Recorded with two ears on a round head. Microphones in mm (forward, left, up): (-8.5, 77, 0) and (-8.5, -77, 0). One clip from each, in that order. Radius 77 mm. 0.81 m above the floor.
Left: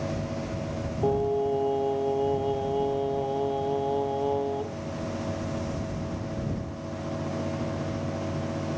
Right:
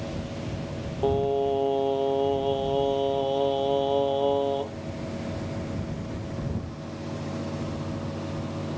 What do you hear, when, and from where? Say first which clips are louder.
1.0 s singing: right 2 dB; 65° right (ahead or behind)